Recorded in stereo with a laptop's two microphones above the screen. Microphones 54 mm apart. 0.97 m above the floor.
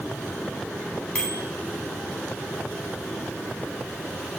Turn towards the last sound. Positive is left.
turn(degrees=30)  # may be behind; listen again after turning